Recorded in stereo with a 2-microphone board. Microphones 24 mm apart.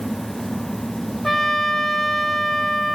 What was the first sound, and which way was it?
A trumpet, 15° left (ahead or behind).